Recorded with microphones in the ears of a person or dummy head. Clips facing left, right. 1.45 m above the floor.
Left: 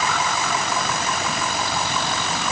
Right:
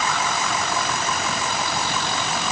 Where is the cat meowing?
No cat meowing in this recording.